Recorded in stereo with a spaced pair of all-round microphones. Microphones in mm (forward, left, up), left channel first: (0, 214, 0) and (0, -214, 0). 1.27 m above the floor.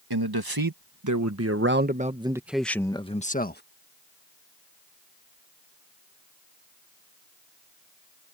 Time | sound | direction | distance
0.1 | a man speaking | 60° right (ahead or behind) | ?